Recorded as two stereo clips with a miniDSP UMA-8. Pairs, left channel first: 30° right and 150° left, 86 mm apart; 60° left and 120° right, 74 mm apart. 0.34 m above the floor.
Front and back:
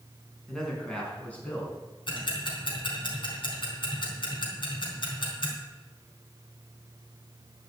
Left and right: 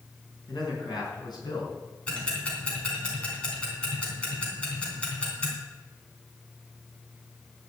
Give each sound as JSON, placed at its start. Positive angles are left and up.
{"t": 0.5, "sound": "a man speaking", "azimuth_deg": 55, "distance_m": 4.5}
{"t": 2.1, "sound": "ticking", "azimuth_deg": -15, "distance_m": 4.0}